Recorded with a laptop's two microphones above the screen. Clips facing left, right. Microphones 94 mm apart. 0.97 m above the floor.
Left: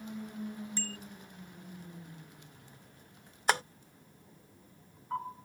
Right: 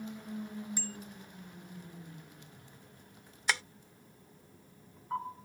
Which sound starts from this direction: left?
Tapping, at 3.5 s.